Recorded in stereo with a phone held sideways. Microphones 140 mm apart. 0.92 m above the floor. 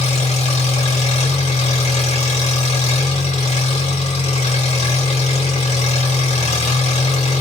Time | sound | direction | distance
0.0 | an engine running | 55° left (ahead or behind) | 1.3 m